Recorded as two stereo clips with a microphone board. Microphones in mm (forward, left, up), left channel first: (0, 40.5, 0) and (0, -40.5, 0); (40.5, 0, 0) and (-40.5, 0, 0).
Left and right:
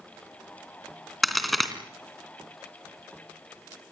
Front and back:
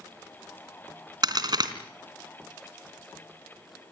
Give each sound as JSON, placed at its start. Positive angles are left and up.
{"t": 1.2, "sound": "a crack", "azimuth_deg": 180, "distance_m": 2.5}